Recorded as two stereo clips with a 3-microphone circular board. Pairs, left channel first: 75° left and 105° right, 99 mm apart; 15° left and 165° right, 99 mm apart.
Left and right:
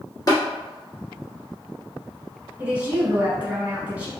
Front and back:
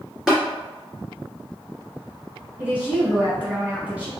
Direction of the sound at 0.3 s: 115° left.